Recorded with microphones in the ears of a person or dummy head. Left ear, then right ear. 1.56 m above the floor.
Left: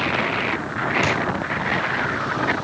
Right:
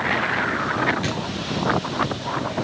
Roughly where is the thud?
Left.